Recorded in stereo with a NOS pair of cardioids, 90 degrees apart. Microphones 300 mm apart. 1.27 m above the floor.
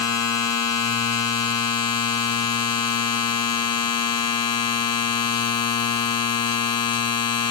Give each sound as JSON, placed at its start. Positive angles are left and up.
{"t": 0.0, "sound": "a machine running", "azimuth_deg": 60, "distance_m": 2.0}